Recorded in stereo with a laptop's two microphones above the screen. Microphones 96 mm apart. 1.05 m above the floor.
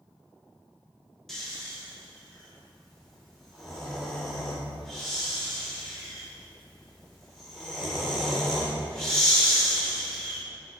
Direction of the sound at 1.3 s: 5° left (ahead or behind).